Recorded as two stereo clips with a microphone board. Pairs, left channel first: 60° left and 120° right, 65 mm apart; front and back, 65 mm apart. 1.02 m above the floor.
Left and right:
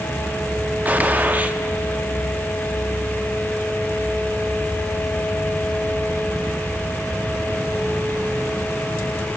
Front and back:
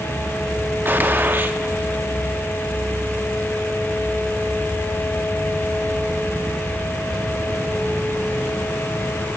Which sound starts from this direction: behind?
A gunshot, at 0.8 s.